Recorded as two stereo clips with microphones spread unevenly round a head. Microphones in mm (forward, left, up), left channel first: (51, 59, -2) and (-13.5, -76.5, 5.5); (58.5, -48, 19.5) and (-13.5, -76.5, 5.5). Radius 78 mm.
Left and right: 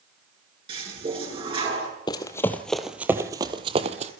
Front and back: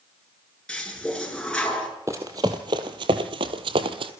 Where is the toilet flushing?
60° right, 8 m.